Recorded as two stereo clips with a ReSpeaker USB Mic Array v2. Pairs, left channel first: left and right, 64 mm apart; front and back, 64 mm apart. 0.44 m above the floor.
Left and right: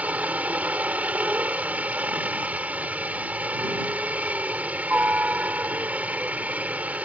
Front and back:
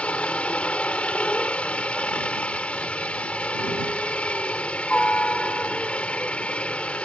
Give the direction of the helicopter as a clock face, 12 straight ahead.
2 o'clock.